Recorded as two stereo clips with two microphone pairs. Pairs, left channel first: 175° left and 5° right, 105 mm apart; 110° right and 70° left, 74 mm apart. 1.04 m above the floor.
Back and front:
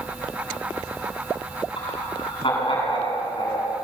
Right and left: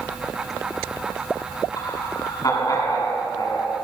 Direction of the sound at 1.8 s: 150° right.